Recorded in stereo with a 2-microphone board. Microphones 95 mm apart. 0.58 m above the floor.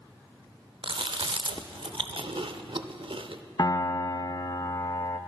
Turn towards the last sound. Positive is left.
turn(degrees=45)  # may be behind; listen again after turning